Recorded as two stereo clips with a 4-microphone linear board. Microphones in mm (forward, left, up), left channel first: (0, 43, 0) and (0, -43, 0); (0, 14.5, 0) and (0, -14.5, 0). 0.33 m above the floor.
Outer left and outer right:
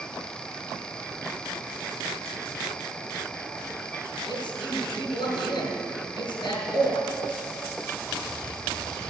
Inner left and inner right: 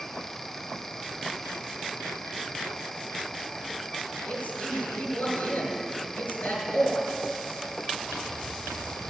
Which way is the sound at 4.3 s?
55° left (ahead or behind).